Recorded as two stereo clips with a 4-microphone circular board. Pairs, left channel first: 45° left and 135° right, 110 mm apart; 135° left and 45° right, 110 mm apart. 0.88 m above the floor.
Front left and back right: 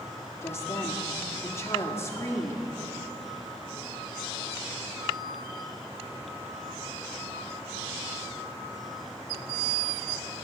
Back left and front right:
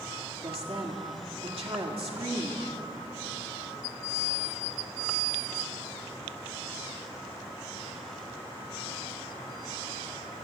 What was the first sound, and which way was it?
A woman speaking, 15° right.